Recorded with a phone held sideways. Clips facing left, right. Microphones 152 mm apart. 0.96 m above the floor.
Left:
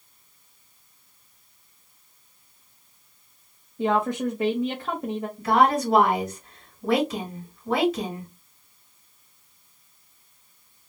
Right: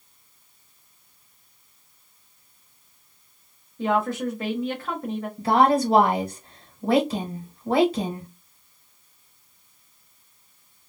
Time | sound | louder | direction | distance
3.8 | a woman speaking | even | 20° left (ahead or behind) | 0.7 m
5.4 | a woman speaking | right 2 dB | 30° right (ahead or behind) | 1.1 m